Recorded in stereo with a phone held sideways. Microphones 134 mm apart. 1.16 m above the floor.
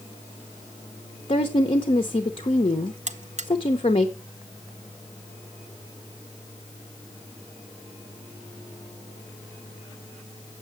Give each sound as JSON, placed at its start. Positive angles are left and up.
{"t": 1.3, "sound": "a woman speaking", "side_deg": 45, "distance_m": 0.9}
{"t": 3.1, "sound": "a buzzer", "side_deg": -60, "distance_m": 0.7}